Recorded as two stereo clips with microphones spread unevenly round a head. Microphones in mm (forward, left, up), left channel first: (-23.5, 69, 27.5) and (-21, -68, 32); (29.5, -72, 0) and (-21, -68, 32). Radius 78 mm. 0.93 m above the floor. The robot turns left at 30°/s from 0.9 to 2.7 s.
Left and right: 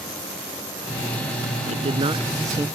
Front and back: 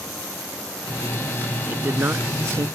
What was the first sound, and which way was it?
A man speaking, 130° right.